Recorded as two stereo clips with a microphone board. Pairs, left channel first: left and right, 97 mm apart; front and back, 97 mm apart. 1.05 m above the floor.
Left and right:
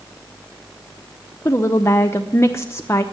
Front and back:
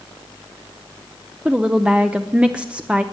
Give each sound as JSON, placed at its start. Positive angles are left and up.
{"t": 1.4, "sound": "a woman speaking", "azimuth_deg": 110, "distance_m": 0.8}